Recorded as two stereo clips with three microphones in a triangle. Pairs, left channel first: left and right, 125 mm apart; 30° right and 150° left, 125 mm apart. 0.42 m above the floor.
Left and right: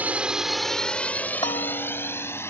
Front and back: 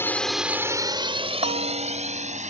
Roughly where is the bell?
Behind left.